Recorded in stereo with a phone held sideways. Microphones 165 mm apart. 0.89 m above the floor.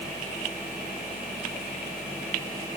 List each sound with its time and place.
Only background noise.